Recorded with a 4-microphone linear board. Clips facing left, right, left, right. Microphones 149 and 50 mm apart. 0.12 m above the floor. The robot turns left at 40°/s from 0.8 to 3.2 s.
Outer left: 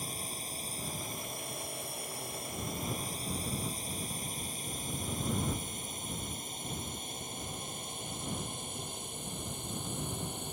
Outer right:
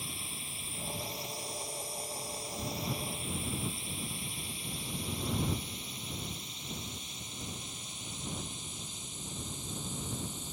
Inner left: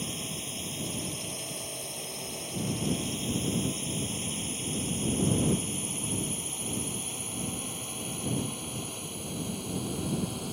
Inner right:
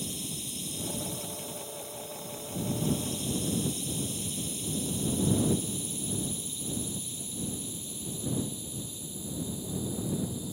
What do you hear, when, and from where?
0.0 s a drone: 45° left (ahead or behind); by 10.5 s 60° left (ahead or behind)